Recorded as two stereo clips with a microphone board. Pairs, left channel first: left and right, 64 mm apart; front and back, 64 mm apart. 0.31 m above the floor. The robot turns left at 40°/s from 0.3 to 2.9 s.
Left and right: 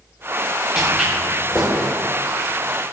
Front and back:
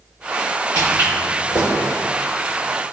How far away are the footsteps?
About 1.4 m.